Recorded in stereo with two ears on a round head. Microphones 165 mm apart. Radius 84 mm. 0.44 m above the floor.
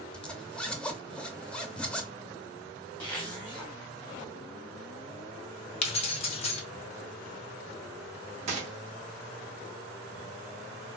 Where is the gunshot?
40° right (ahead or behind), 0.9 m.